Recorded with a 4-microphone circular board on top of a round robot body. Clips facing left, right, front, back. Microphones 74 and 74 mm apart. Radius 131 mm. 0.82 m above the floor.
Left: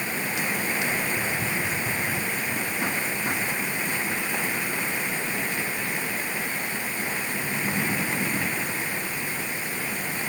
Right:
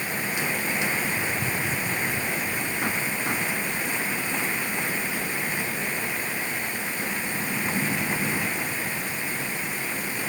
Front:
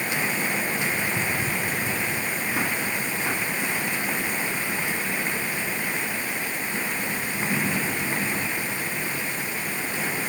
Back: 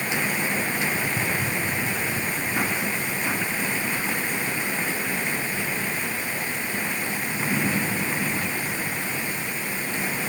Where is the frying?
No frying in this recording.